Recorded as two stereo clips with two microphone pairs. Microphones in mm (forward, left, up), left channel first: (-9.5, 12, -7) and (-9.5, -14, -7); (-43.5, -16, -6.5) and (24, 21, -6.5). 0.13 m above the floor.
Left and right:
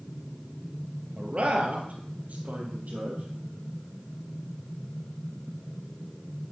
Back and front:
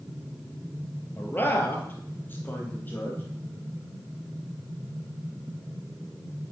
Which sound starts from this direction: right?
A man speaking, at 1.2 s.